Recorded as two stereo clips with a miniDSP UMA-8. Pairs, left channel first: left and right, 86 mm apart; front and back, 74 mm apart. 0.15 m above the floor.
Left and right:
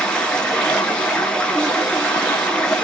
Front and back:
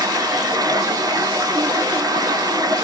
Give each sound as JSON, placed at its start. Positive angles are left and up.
{"t": 0.0, "sound": "running water", "azimuth_deg": 170, "distance_m": 0.7}